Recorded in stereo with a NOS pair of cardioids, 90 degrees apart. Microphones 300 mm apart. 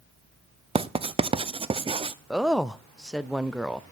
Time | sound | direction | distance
0.8 | writing | 20° right | 0.6 m
2.3 | a woman speaking | straight ahead | 0.7 m